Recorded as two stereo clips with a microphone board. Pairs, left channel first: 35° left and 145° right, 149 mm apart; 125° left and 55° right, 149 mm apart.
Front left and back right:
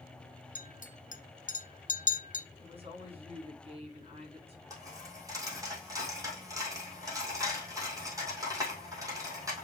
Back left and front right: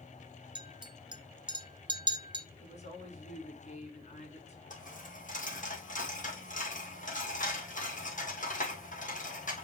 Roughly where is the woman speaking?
Behind.